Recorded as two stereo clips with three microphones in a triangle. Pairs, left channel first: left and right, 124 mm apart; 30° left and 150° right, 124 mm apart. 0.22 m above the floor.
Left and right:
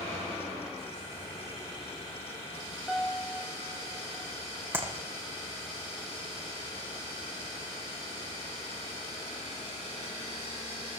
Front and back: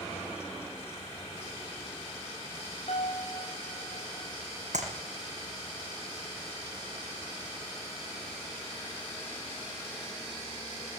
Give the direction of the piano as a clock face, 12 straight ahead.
12 o'clock.